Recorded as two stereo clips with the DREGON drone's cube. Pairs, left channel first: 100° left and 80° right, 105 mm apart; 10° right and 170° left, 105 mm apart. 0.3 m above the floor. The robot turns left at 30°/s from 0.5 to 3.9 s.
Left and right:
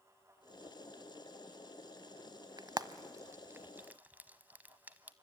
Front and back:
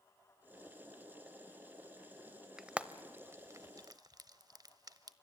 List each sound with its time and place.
2.6 s frying: 105° right, 0.9 m; by 5.1 s 145° right, 0.9 m